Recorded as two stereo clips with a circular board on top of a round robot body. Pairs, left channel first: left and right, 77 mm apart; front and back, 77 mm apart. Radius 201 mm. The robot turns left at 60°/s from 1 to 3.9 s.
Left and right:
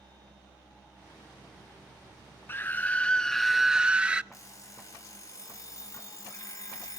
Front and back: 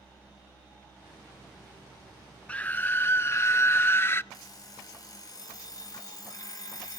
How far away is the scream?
About 0.6 m.